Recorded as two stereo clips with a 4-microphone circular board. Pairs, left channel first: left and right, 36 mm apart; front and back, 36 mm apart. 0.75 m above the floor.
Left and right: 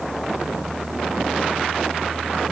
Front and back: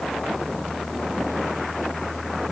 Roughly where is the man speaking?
I don't hear a man speaking.